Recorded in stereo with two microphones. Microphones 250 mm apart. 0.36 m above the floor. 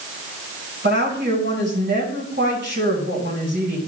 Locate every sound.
0.8 s a woman speaking: 45° right (ahead or behind), 3 m